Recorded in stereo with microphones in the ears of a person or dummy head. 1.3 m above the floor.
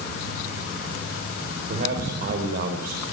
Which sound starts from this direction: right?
A man speaking, at 1.7 s.